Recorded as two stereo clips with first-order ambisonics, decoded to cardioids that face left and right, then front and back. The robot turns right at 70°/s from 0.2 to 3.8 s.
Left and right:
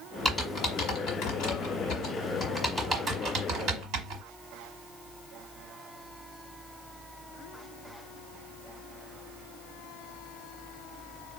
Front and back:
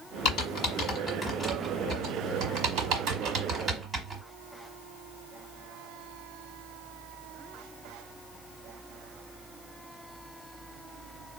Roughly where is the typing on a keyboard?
Ahead.